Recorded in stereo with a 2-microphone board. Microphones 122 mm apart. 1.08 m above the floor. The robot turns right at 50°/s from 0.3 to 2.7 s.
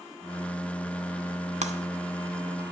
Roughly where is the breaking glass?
Right.